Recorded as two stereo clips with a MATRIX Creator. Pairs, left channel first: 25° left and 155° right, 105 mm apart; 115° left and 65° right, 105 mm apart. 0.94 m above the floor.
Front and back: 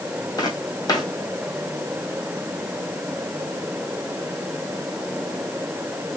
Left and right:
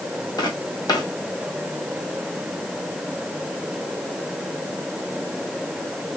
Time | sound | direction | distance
0.4 | footsteps | 70° left | 1.7 m